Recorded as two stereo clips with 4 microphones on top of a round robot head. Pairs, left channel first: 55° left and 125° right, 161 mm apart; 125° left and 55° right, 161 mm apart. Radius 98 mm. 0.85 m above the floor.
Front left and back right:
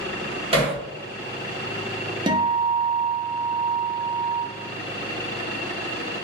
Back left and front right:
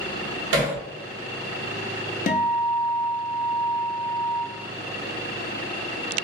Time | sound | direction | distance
0.5 | hammering | 65° right | 1.3 m
2.3 | a guitar | 170° left | 0.6 m